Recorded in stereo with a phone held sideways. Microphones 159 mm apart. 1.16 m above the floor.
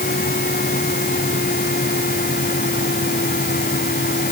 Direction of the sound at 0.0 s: 75° left (ahead or behind).